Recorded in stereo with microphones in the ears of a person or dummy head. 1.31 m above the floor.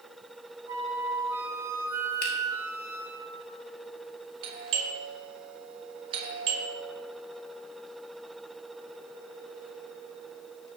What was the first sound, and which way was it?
A flute, 15° right (ahead or behind).